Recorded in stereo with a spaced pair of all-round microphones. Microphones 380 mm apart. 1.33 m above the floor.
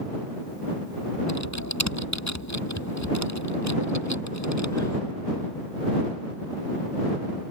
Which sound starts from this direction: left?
Typing on a keyboard, at 1.3 s.